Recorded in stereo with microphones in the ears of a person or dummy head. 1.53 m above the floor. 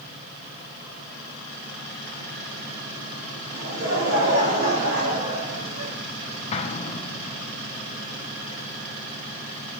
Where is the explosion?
35° left (ahead or behind), 0.8 m.